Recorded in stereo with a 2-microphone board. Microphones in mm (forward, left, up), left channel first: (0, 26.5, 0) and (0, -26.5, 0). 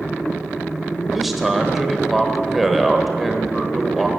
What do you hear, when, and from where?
1.1 s a man speaking: centre (ahead or behind), 1.0 m